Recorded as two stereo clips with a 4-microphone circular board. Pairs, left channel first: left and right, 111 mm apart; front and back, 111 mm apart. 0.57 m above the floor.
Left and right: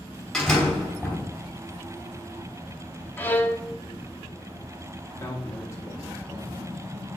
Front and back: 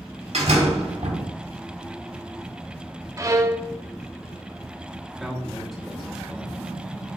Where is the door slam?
175° left, 2.5 m.